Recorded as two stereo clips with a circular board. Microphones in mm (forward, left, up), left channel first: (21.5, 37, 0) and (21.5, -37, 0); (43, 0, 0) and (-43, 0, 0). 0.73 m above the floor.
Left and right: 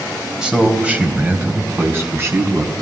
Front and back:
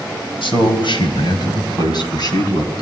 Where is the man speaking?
10° right, 3.5 m; by 2.8 s 40° right, 5 m.